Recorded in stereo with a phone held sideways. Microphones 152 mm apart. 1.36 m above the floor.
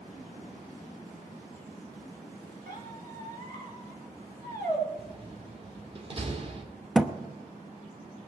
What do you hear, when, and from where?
2.7 s a squeak: 85° right, 3 m
5.0 s a door slam: 40° right (ahead or behind), 2.5 m
7.0 s a thud: centre (ahead or behind), 0.8 m